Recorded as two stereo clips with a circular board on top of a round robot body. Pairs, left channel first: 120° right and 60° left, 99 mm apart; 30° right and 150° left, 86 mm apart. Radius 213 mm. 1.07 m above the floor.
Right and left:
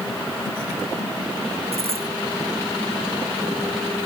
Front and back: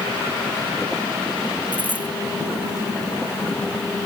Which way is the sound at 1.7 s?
75° left.